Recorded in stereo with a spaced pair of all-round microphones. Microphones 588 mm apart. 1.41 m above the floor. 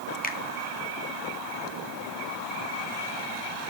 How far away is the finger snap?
About 1.4 m.